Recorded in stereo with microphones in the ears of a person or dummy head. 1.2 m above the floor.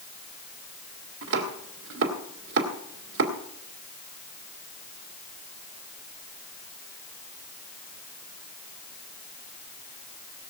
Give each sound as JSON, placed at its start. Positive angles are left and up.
{"t": 1.2, "sound": "chopping", "side_deg": -70, "distance_m": 1.7}